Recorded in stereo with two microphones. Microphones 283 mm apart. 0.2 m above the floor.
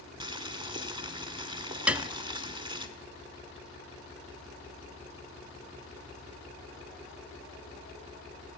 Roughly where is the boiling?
Centre.